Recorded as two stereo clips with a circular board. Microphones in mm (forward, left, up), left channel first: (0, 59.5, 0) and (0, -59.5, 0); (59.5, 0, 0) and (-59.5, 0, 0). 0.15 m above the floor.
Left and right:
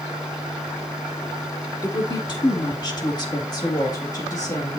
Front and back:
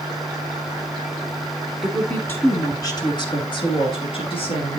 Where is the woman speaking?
90° left, 1.4 m; by 4.8 s 35° left, 3.5 m.